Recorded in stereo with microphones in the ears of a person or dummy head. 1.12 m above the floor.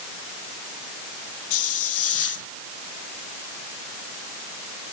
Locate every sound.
1.5 s a hiss: 80° left